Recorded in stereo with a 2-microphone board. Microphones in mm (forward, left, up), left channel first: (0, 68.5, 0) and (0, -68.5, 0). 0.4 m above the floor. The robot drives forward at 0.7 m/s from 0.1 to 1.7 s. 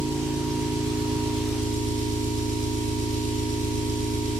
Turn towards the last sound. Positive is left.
turn(degrees=-60)  # may be behind; listen again after turning